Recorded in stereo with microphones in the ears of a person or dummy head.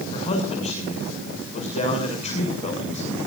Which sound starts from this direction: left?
A man speaking, at 0.1 s.